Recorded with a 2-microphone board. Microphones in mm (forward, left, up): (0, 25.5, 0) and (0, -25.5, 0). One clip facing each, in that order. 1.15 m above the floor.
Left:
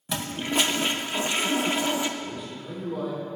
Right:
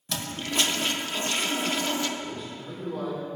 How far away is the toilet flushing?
About 0.5 m.